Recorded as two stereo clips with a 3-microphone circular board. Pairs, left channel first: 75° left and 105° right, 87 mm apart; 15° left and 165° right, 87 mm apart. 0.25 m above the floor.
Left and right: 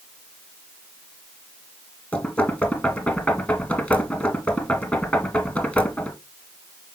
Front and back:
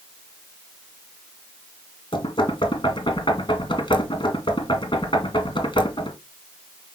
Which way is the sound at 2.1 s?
Straight ahead.